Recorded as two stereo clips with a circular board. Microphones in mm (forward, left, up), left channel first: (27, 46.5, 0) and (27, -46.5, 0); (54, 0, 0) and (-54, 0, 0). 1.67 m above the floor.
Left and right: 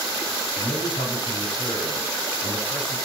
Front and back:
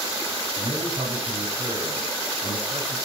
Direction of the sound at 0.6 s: 120° left.